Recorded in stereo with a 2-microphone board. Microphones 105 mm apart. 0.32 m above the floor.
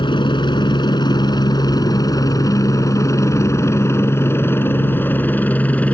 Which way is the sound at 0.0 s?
50° left (ahead or behind).